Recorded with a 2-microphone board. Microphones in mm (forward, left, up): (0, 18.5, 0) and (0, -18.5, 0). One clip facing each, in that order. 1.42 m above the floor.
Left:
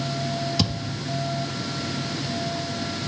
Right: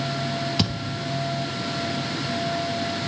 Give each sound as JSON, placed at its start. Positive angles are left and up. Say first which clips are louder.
{"t": 0.6, "sound": "a thud", "louder": "right 1 dB", "side_deg": -35, "distance_m": 2.0}